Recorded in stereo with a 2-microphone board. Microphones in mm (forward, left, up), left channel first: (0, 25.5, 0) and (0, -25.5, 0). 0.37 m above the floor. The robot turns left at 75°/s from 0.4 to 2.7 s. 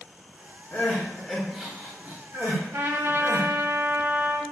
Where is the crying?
45° left (ahead or behind), 1.8 m; by 3.5 s 60° right (ahead or behind), 1.8 m.